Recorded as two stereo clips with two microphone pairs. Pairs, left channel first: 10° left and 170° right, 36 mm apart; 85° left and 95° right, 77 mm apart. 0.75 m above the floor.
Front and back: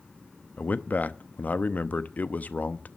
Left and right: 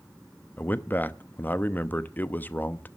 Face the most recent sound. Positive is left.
turn(degrees=25)